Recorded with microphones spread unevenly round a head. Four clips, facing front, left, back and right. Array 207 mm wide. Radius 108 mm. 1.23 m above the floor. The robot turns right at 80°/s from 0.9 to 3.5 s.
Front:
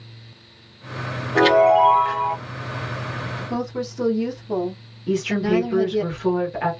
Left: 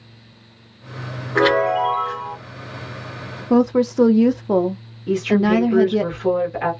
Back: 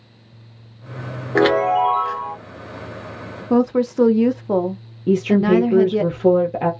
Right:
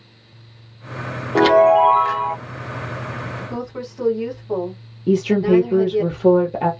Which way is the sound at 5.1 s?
145° right.